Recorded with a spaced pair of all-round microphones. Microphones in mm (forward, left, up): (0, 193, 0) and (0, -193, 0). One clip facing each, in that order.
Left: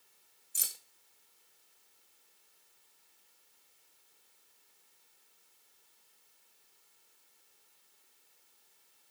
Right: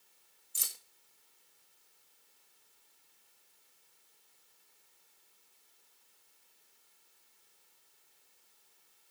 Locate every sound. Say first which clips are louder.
0.6 s keys jangling: even; 5° right (ahead or behind), 0.8 m